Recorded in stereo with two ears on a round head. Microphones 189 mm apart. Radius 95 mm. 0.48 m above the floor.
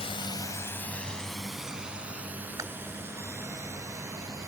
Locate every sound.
0.0 s a drone: 30° left (ahead or behind); by 4.5 s 15° right (ahead or behind)
2.6 s chewing: 15° right (ahead or behind)